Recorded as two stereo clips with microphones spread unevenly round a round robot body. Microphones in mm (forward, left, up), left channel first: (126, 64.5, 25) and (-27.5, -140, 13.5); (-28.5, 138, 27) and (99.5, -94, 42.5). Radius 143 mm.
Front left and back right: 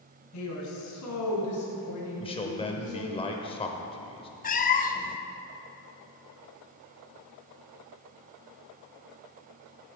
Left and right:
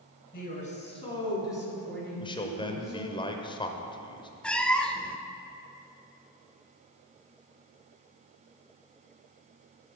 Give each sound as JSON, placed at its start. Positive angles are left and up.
{"t": 0.3, "sound": "a woman speaking", "azimuth_deg": 65, "distance_m": 3.0}
{"t": 2.2, "sound": "a man speaking", "azimuth_deg": 90, "distance_m": 0.9}
{"t": 4.4, "sound": "a cat meowing", "azimuth_deg": 40, "distance_m": 0.6}